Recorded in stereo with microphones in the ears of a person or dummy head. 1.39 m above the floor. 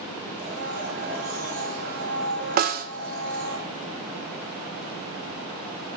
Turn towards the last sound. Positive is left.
turn(degrees=-50)  # may be behind; listen again after turning